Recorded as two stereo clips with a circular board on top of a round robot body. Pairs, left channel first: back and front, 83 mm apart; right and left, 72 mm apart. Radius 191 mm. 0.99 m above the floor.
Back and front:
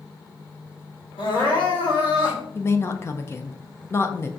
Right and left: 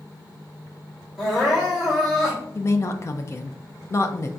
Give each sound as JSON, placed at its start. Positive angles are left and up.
{"t": 1.2, "sound": "crying", "azimuth_deg": -175, "distance_m": 1.4}
{"t": 2.5, "sound": "a woman speaking", "azimuth_deg": -130, "distance_m": 0.6}